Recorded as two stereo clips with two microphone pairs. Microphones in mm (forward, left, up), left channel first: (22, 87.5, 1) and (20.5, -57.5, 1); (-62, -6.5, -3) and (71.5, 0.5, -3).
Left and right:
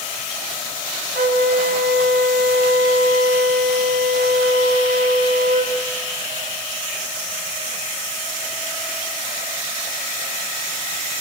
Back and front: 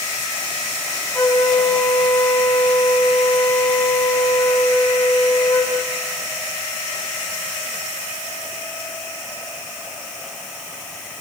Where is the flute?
100° right, 4.5 m.